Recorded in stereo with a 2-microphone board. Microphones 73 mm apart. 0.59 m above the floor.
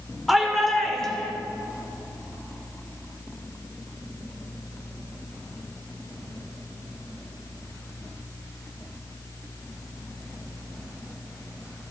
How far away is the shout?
About 1.7 m.